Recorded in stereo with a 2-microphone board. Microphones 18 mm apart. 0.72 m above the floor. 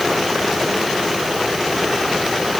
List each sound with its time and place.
Only background noise.